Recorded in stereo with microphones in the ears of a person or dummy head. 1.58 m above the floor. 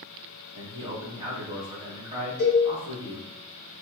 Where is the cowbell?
50° right (ahead or behind), 1.9 m.